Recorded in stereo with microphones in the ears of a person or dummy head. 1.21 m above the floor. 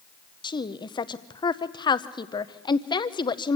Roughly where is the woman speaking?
Left.